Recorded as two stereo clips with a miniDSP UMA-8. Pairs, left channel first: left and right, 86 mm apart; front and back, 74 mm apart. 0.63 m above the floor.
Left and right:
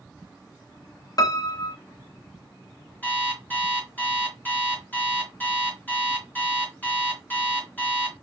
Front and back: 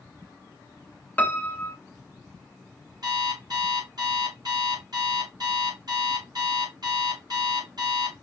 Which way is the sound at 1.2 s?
60° left.